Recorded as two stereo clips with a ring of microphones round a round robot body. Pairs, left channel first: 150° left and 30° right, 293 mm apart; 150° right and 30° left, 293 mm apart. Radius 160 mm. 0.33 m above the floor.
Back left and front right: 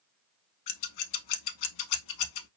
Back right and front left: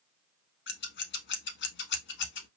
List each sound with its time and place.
0.7 s scissors: 155° left, 0.7 m